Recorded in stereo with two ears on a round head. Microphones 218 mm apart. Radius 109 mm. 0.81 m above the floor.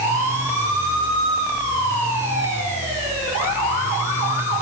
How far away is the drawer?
I don't hear a drawer.